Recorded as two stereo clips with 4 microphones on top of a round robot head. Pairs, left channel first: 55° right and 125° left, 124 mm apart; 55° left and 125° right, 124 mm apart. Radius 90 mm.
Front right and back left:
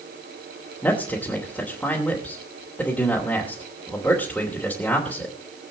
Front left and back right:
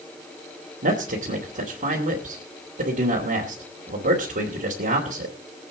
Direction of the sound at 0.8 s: 135° right.